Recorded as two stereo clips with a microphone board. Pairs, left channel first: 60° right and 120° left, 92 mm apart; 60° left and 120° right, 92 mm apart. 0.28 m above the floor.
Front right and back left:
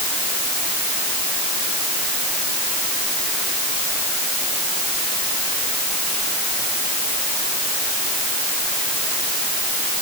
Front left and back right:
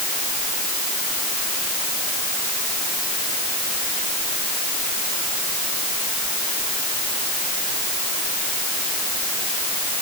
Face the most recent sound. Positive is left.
No sound to turn to.